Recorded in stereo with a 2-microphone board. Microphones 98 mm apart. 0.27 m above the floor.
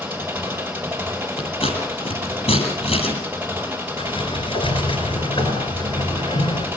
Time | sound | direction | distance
0.0 | an engine running | 20° right (ahead or behind) | 6 m
1.4 | scissors | 75° left (ahead or behind) | 9 m
4.0 | a sliding door | 70° left (ahead or behind) | 4 m